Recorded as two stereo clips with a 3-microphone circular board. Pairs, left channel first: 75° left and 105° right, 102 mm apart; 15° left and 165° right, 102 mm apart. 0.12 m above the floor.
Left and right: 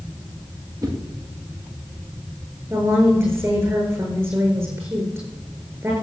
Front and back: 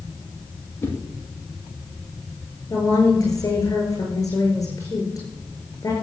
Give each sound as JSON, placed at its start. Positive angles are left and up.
{"t": 0.8, "sound": "a whoosh", "azimuth_deg": -50, "distance_m": 3.5}
{"t": 2.7, "sound": "a woman speaking", "azimuth_deg": -40, "distance_m": 8.0}